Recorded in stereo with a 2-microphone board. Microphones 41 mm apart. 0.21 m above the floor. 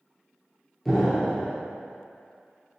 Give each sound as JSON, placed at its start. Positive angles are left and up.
{"t": 0.8, "sound": "an explosion", "side_deg": 5, "distance_m": 1.1}